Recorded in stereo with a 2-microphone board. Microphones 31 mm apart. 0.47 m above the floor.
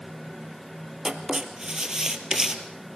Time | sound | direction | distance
1.1 | writing | 20° right (ahead or behind) | 2 m